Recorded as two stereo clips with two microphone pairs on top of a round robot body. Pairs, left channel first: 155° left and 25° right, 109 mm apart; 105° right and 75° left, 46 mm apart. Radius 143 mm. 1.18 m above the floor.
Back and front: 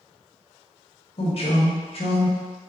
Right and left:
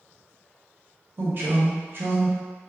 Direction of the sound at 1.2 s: 125° left.